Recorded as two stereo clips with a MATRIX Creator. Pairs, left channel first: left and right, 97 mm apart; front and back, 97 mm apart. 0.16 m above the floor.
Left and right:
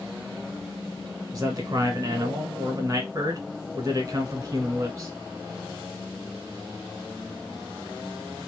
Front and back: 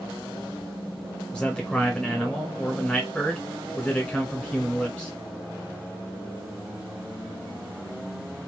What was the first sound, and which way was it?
A man speaking, 75° right.